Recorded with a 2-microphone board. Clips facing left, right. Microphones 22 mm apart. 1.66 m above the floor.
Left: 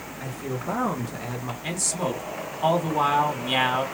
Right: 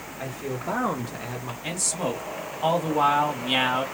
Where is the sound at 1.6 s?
5° right (ahead or behind), 1.4 m.